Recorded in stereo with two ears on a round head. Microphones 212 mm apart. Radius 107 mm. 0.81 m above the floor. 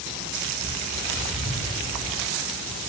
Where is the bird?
25° right (ahead or behind), 7 m.